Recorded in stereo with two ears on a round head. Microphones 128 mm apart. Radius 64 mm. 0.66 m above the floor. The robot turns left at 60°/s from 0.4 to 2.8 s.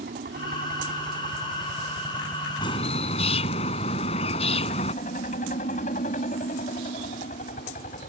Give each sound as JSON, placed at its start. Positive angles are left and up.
{"t": 0.0, "sound": "a helicopter", "side_deg": -75}
{"t": 2.6, "sound": "a bird", "side_deg": 35}